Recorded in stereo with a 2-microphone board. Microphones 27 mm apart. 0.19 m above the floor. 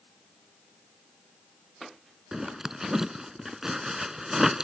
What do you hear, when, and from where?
2.3 s a zipper: 15° right (ahead or behind)